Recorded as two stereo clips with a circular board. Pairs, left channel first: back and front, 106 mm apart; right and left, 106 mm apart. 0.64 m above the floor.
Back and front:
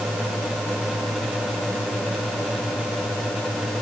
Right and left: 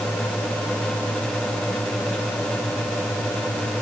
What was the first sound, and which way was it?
Only background noise.